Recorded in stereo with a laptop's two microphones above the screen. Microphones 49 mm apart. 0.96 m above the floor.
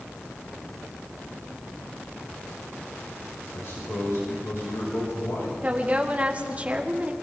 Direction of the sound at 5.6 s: 30° right (ahead or behind).